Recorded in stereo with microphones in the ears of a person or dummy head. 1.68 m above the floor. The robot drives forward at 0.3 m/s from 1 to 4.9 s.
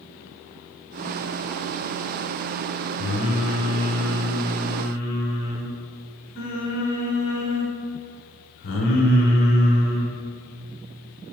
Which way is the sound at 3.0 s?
45° left (ahead or behind).